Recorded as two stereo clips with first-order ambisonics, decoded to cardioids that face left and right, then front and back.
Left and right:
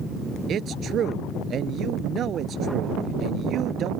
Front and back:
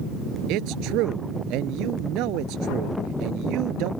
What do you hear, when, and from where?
0.5 s a man speaking: 150° right